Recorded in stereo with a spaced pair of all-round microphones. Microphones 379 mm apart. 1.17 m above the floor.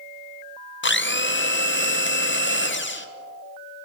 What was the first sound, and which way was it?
A blender, 30° left (ahead or behind).